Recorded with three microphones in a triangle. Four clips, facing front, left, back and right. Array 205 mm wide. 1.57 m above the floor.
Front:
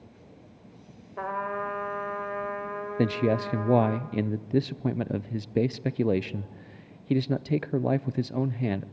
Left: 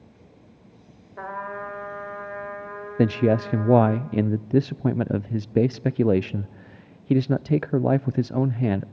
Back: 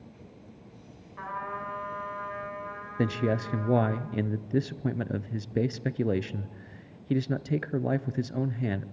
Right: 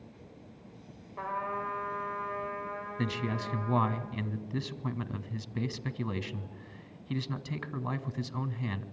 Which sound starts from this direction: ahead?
A trumpet, at 1.2 s.